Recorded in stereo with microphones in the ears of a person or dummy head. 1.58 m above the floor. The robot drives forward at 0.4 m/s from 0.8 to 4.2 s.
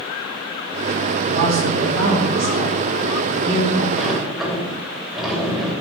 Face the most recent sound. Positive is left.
turn(degrees=0)  # may be behind; listen again after turning